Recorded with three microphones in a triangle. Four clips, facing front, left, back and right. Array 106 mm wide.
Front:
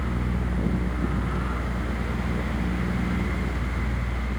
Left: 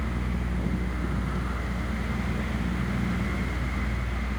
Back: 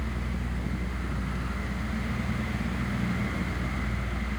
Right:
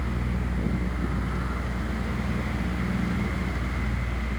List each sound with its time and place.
Only background noise.